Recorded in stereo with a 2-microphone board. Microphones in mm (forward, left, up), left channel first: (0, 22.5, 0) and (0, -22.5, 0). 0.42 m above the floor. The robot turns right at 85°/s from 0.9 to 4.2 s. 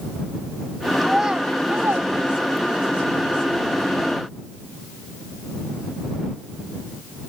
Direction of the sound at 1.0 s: Centre (ahead or behind).